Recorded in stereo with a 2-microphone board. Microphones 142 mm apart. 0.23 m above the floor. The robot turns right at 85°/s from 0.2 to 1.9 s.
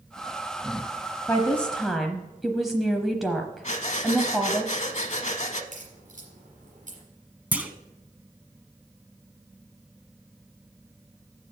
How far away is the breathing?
About 0.8 m.